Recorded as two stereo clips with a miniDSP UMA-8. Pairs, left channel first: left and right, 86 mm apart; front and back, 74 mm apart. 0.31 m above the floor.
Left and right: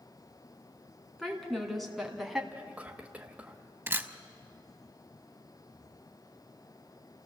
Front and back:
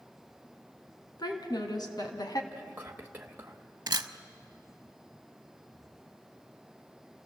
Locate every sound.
1.2 s a woman speaking: 5° left, 3 m; by 2.4 s 5° right, 2 m
2.5 s whispering: 145° right, 1.1 m
3.9 s a camera shutter: 155° right, 0.7 m